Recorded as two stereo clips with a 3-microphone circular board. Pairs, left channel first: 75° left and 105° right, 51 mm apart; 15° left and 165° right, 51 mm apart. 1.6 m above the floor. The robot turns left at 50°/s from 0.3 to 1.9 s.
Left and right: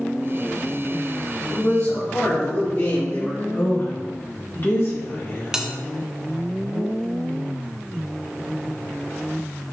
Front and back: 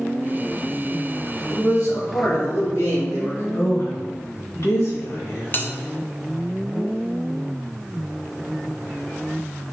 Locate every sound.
1.5 s a man speaking: 65° left, 3 m; by 3.4 s 40° left, 3 m
3.5 s a woman speaking: 35° left, 2.0 m
5.5 s a bell: 25° right, 0.7 m